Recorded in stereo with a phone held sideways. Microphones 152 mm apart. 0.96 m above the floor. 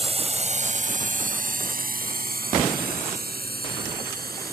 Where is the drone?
40° right (ahead or behind); by 4.5 s 85° right.